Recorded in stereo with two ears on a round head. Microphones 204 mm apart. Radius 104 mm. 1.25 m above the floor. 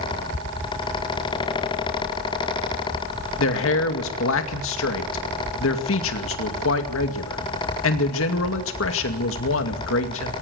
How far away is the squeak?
No squeak in this recording.